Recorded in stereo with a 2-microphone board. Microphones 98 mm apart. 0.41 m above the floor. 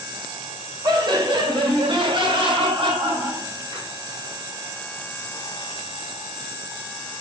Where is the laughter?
50° right (ahead or behind), 1.8 m; by 3.9 s 65° right (ahead or behind), 3 m.